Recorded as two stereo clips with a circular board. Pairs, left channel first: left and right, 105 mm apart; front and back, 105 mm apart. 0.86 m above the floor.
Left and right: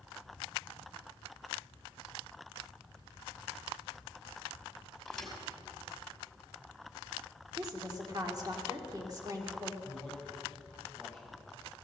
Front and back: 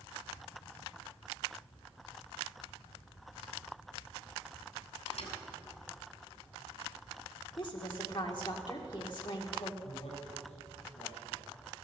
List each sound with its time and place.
5.1 s a thud: 5° left, 2.5 m
7.6 s a woman speaking: 40° right, 2.0 m
9.8 s a man speaking: 5° right, 5.5 m